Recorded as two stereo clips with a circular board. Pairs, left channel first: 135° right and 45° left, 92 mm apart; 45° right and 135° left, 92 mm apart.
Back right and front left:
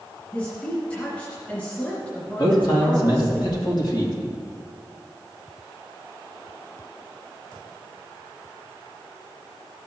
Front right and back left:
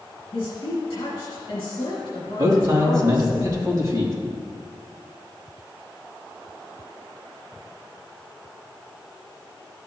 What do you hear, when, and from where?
0.3 s a woman speaking: 70° right, 2 m
2.4 s a man speaking: 175° right, 2.5 m